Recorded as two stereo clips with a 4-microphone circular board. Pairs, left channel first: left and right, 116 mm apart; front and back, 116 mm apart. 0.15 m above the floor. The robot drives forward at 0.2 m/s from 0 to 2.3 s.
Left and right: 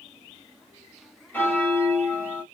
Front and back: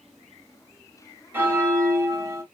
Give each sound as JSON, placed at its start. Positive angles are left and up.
{"t": 1.3, "sound": "a bell", "azimuth_deg": 135, "distance_m": 1.5}